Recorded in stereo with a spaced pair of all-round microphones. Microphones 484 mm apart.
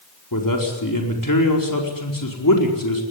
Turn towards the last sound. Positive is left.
turn(degrees=40)  # may be behind; listen again after turning